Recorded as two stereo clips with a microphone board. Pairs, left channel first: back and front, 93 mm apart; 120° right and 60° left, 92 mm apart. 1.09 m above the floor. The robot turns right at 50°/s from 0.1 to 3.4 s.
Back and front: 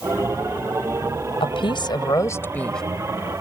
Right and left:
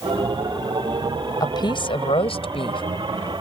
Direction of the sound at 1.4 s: 170° right.